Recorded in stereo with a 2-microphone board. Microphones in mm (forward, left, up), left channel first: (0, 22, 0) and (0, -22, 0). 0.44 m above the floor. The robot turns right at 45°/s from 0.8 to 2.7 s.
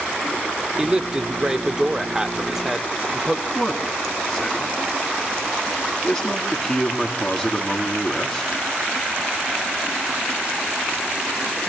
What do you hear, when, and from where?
0.8 s a man speaking: 20° right (ahead or behind), 1.0 m; by 3.5 s 5° right (ahead or behind), 1.0 m
3.5 s a man speaking: 15° left (ahead or behind), 4 m